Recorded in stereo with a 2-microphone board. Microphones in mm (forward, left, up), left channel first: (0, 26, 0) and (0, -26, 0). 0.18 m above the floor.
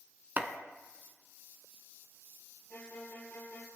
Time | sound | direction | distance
0.4 | chopping | 40° right (ahead or behind) | 0.9 m
2.7 | a violin | 35° left (ahead or behind) | 1.7 m